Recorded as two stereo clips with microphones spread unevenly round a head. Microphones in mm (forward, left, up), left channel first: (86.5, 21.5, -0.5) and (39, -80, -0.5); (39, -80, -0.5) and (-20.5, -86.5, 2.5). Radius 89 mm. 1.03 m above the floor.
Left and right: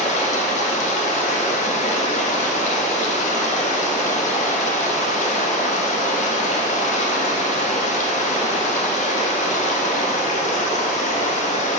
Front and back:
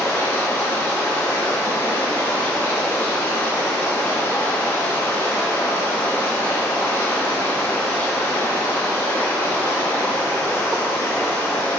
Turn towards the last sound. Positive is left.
turn(degrees=75)